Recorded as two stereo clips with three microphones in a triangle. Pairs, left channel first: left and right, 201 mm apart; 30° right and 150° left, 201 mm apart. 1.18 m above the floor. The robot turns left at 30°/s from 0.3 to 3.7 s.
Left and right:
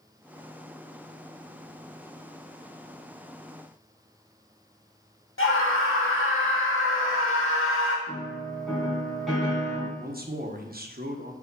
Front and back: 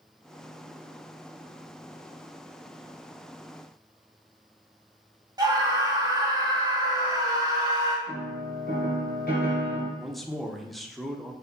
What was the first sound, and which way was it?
A scream, 80° left.